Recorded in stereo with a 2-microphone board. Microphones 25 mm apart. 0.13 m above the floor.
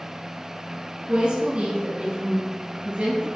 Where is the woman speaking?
40° right (ahead or behind), 2 m; by 3.3 s 60° right (ahead or behind), 3 m.